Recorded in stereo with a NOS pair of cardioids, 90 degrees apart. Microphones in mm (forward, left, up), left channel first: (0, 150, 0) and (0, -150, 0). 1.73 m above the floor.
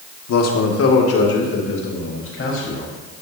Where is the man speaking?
65° left, 1.5 m; by 2.9 s 45° left, 4.5 m.